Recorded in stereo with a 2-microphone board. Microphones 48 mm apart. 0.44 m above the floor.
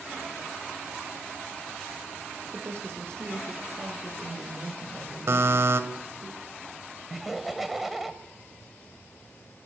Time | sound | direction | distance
2.5 | a woman speaking | 60° right (ahead or behind) | 7.5 m
5.3 | a buzzer | 65° right (ahead or behind) | 2 m
7.1 | laughter | 5° right (ahead or behind) | 2 m